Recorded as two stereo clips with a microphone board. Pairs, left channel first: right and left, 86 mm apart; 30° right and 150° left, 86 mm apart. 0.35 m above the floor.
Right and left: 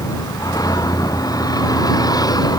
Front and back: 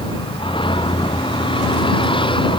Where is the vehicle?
45° right; by 2.6 s 50° right.